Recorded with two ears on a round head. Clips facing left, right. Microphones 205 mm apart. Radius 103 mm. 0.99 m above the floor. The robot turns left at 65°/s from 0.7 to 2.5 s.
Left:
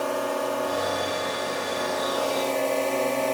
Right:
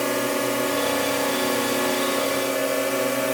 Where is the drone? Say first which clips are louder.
Right 3 dB; 40° right; by 3.3 s 160° right.